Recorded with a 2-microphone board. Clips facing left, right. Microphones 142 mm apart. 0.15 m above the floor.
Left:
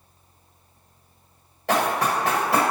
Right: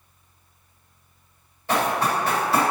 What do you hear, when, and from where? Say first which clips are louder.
1.7 s running footsteps: even; 80° left, 1.4 m